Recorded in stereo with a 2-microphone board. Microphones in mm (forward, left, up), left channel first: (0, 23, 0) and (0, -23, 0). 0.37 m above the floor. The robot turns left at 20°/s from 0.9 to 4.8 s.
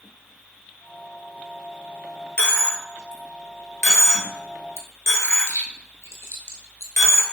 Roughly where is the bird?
I don't hear a bird.